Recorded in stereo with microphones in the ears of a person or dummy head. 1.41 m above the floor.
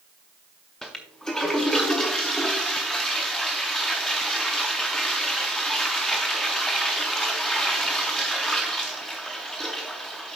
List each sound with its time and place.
0.8 s a toilet flushing: 5° left (ahead or behind), 0.6 m